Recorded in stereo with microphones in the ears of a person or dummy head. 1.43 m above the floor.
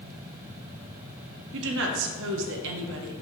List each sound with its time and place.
1.5 s a woman speaking: 70° right (ahead or behind), 0.7 m